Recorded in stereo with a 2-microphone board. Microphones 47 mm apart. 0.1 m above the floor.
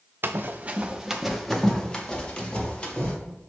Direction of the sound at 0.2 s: 55° right (ahead or behind).